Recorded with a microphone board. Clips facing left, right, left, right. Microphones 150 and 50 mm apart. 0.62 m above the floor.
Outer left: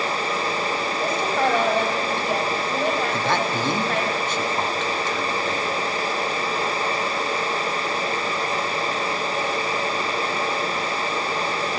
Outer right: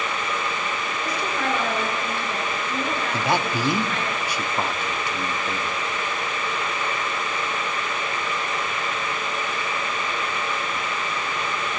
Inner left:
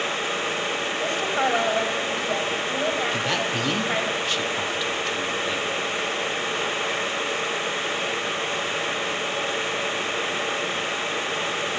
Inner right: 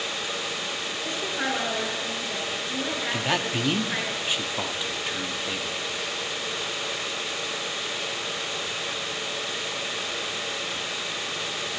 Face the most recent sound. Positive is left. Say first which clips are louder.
# even, inner left 2 dB
turn(degrees=-10)  # may be behind; listen again after turning